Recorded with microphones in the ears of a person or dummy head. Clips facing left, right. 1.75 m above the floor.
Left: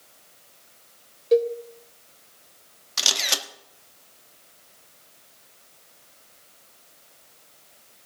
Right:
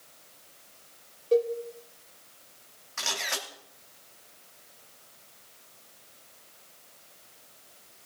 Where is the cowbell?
25° left (ahead or behind), 1.0 m.